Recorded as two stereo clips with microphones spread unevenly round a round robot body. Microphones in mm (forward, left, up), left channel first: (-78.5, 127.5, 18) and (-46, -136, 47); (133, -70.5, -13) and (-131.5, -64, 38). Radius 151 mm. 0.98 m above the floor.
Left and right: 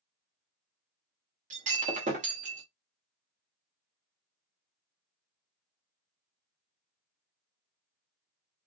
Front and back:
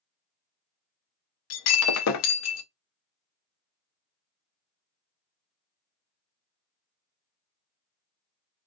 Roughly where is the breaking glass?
Ahead right.